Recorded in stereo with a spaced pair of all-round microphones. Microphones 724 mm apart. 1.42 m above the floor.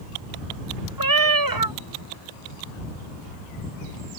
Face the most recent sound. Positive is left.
turn(degrees=-30)  # may be behind; listen again after turning